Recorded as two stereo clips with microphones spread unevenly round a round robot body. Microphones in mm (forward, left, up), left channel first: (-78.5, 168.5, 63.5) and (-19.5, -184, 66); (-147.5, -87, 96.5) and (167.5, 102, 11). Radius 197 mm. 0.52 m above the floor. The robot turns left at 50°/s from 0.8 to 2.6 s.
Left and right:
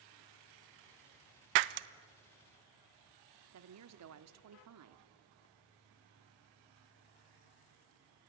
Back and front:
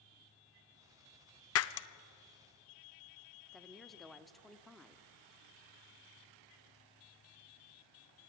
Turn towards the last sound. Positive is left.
turn(degrees=-50)